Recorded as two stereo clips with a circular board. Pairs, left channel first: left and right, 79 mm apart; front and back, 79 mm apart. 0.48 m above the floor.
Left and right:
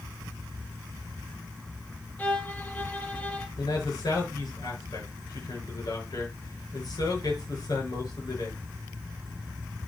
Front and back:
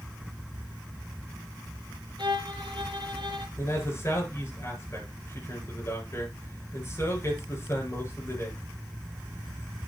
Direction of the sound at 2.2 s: 160° left.